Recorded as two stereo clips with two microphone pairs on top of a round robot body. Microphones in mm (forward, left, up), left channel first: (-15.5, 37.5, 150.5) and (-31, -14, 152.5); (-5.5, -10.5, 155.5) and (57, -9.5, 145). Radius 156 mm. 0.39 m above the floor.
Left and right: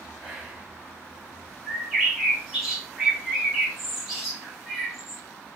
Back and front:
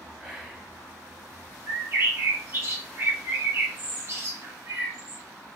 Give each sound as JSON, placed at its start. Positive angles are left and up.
{"t": 0.2, "sound": "whispering", "azimuth_deg": -50, "distance_m": 0.9}
{"t": 1.7, "sound": "a bird", "azimuth_deg": -25, "distance_m": 1.5}